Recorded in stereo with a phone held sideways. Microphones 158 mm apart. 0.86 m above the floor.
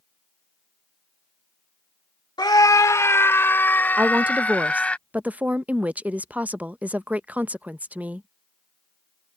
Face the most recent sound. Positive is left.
turn(degrees=-10)  # may be behind; listen again after turning